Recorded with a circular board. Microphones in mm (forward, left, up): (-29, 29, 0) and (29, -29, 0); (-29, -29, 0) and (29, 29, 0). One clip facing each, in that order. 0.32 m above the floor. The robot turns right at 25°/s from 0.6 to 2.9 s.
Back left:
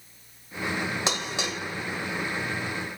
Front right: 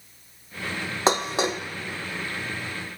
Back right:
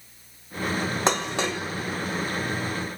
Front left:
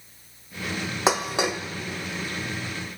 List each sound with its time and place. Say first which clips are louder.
1.1 s dishes clattering: front right 7 dB, front left 4 dB; 35° right, 0.7 m; by 1.6 s 20° right, 0.7 m